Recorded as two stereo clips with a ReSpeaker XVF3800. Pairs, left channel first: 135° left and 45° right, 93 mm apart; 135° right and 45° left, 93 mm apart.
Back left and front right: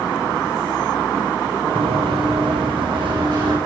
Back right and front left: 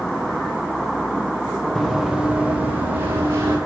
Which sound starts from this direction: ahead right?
Running footsteps, at 1.8 s.